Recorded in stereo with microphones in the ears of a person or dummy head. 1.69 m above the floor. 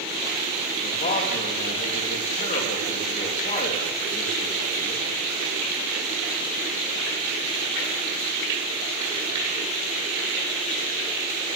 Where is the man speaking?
40° left (ahead or behind), 3 m.